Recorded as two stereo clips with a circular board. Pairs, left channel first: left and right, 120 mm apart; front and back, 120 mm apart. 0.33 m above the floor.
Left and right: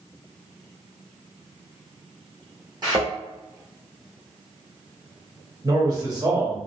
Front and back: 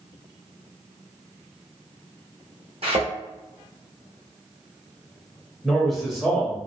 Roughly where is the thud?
Behind right.